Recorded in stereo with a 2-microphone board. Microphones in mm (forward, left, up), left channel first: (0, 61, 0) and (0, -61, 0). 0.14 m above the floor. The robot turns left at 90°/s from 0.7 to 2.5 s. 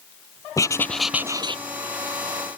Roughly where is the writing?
Ahead left.